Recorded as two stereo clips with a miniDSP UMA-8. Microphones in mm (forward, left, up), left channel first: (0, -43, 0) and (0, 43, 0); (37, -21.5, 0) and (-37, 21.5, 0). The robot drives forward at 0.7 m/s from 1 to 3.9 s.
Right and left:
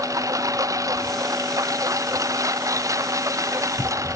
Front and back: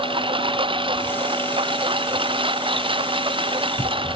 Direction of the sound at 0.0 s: 140° left.